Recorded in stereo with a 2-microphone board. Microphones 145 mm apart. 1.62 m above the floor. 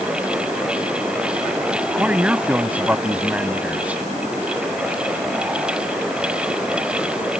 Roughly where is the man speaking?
Centre.